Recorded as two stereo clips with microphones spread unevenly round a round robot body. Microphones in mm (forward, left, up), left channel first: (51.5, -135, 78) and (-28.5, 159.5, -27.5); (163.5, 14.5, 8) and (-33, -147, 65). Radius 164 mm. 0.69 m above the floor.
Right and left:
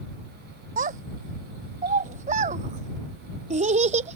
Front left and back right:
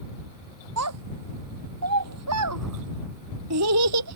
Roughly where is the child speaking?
Behind.